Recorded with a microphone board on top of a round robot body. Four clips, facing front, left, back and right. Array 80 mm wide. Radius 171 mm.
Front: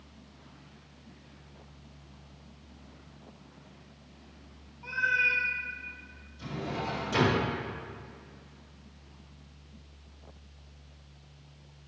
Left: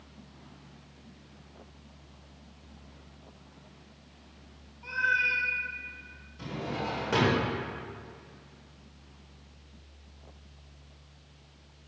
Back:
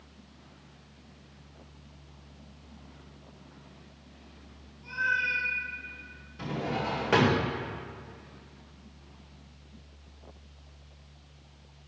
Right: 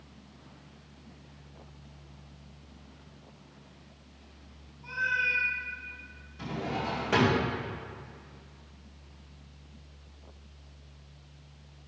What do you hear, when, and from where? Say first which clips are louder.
4.8 s a cat meowing: left 2 dB, front 1 dB; 30° left, 1.3 m
6.4 s a drawer: right 1 dB, back 3 dB; 175° right, 1.9 m